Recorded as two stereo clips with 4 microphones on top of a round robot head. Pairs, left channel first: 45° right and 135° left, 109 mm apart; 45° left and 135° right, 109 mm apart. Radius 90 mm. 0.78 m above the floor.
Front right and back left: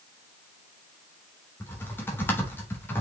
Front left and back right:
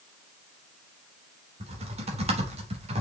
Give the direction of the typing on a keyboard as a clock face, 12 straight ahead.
4 o'clock.